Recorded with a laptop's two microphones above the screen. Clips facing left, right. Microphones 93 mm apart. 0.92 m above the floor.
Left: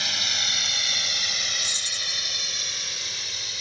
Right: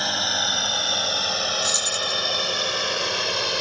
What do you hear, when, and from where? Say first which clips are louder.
0.0 s a drone: right 7 dB; 40° right (ahead or behind); by 3.6 s 75° right (ahead or behind)
1.6 s keys jangling: right 11 dB; 85° right